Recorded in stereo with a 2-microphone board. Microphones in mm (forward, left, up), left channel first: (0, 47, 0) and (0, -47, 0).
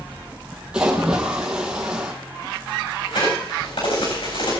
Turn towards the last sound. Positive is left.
turn(degrees=70)  # may be behind; listen again after turning